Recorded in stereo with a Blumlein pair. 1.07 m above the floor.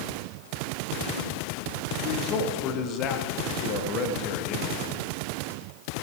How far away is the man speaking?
About 1.2 m.